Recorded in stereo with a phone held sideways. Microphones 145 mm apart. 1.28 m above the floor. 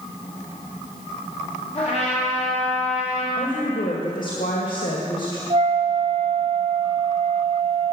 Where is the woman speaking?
75° left (ahead or behind), 1.8 m.